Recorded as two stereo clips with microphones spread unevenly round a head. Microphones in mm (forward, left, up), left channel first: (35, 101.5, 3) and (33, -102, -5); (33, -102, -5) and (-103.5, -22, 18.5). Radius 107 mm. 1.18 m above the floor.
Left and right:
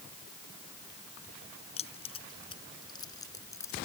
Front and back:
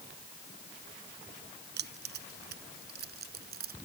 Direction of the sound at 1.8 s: 155° left.